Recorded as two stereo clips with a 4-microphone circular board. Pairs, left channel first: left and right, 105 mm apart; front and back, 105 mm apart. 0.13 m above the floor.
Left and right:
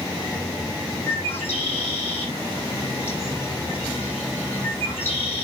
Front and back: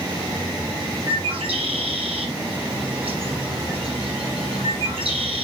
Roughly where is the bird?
Behind left.